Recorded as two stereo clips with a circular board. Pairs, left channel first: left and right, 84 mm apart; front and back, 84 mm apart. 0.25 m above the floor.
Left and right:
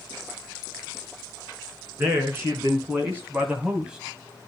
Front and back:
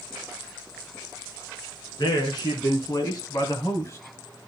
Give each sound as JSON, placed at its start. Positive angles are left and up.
{"t": 2.0, "sound": "a man speaking", "azimuth_deg": -35, "distance_m": 3.0}